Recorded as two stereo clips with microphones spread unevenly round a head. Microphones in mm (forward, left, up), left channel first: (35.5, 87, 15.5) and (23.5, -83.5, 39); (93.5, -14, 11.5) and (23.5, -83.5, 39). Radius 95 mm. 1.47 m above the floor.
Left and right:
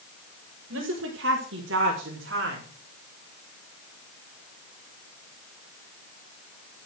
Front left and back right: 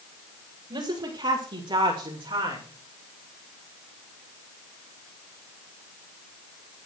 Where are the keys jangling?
No keys jangling in this recording.